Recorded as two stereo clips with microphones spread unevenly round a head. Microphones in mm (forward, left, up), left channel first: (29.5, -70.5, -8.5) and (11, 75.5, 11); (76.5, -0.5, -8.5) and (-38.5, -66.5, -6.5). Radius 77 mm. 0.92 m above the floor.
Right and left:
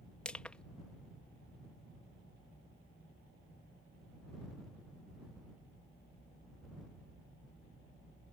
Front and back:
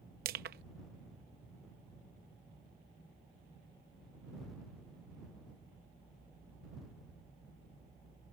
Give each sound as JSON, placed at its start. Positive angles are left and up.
{"t": 0.2, "sound": "crushing", "azimuth_deg": -165}